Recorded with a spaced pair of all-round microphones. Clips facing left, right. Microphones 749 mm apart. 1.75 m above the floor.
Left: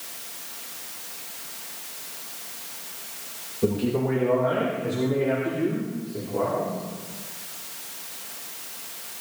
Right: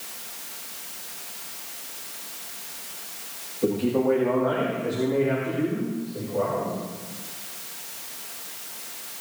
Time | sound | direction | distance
3.6 | a man speaking | 40° left (ahead or behind) | 3 m